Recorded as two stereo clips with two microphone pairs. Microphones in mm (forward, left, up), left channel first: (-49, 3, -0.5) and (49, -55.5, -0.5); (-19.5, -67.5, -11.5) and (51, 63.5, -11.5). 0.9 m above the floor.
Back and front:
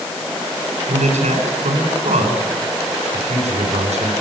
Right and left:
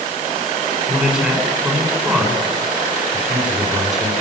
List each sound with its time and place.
0.9 s a man speaking: 25° right, 8.5 m